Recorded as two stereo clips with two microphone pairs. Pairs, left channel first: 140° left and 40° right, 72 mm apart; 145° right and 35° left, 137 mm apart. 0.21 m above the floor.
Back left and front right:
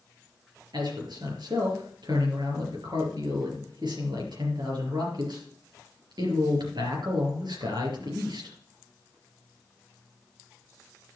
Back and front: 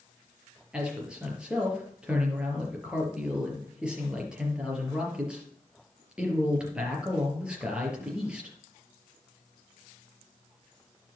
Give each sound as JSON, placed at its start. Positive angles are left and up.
{"t": 0.7, "sound": "a man speaking", "azimuth_deg": -50, "distance_m": 3.5}